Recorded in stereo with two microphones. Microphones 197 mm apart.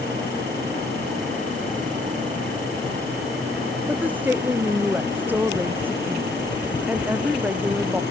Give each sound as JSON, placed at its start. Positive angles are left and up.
{"t": 3.9, "sound": "a woman speaking", "side_deg": -10}